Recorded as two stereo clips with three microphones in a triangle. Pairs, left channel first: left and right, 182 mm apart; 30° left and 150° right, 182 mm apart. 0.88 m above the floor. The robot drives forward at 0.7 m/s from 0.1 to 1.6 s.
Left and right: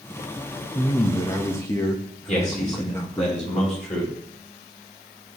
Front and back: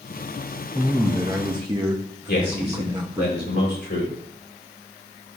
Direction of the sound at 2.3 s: 45° left.